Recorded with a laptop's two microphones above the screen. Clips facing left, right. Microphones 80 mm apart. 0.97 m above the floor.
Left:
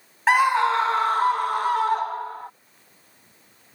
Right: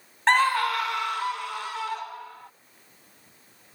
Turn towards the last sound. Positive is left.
turn(degrees=45)  # may be behind; listen again after turning